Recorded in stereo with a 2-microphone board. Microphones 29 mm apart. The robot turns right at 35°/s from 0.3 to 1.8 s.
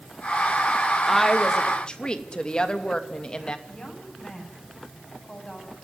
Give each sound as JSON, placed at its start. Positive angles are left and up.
{"t": 1.1, "sound": "a woman speaking", "side_deg": 5, "distance_m": 2.5}
{"t": 3.7, "sound": "a woman speaking", "side_deg": 25, "distance_m": 8.5}